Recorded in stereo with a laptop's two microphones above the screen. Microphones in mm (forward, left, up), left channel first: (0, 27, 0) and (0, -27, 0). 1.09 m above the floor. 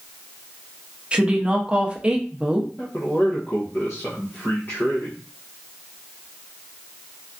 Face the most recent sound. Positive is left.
turn(degrees=35)  # may be behind; listen again after turning